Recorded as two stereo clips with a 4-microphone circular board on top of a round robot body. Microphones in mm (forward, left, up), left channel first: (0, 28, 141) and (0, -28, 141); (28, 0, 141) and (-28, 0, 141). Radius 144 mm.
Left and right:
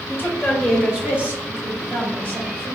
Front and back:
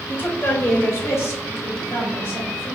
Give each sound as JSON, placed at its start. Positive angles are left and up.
{"t": 0.1, "sound": "a woman speaking", "azimuth_deg": 40, "distance_m": 1.0}